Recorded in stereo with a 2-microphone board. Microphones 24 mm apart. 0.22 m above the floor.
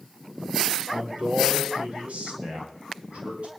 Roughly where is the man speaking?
Right.